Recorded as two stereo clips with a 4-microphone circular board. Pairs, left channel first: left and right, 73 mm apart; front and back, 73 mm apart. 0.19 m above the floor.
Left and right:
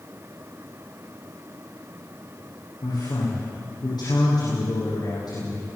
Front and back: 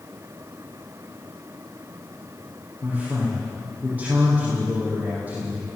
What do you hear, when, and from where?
2.8 s a man speaking: 110° left, 10 m